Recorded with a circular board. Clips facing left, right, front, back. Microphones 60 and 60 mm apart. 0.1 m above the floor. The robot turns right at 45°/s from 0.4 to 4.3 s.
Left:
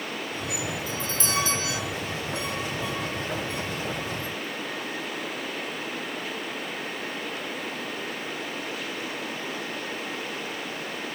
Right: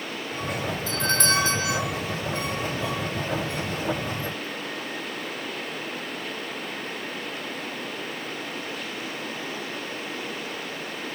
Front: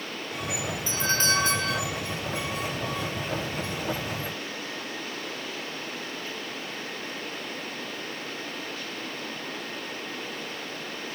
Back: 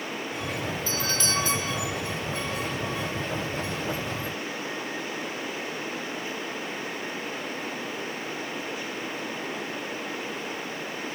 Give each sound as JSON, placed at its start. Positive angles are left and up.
{"t": 0.9, "sound": "a doorbell", "azimuth_deg": -75}